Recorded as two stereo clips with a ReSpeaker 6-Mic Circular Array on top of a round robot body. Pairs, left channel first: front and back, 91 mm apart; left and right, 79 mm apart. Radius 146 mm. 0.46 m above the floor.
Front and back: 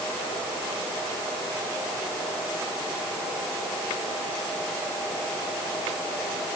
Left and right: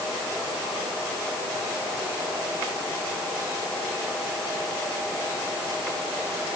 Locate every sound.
Only background noise.